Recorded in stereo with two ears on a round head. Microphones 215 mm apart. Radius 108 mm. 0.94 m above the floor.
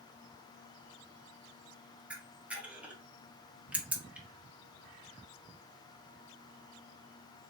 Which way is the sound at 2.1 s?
5° right (ahead or behind).